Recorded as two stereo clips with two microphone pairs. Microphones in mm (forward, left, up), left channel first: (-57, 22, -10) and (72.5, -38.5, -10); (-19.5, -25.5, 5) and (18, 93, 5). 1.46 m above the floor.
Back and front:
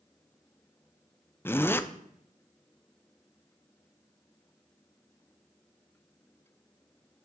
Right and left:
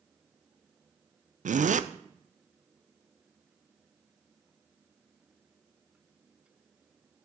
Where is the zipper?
80° left, 0.5 m.